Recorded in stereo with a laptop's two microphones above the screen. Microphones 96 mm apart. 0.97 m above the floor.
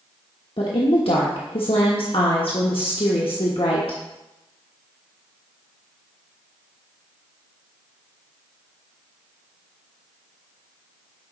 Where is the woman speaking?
65° left (ahead or behind), 1.2 m.